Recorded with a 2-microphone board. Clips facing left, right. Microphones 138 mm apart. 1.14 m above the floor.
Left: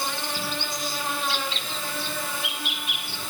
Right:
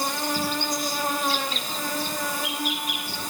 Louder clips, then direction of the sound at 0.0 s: Right 4 dB; 40° right (ahead or behind).